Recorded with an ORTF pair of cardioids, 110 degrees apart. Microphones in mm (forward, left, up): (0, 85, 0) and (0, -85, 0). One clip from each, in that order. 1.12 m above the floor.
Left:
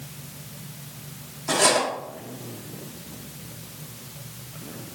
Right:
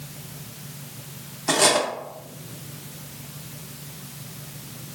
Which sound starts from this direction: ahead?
Cutlery clinking, at 1.5 s.